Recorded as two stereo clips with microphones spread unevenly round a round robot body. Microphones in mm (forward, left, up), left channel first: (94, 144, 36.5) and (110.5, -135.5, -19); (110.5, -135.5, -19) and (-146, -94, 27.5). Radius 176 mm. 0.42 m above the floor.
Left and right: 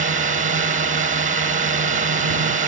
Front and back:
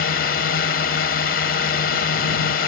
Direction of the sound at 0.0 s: 40° right.